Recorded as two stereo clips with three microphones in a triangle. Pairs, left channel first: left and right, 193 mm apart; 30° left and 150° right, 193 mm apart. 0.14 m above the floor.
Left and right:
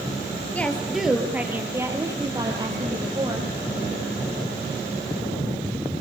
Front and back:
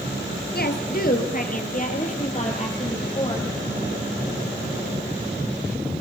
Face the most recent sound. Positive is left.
turn(degrees=-30)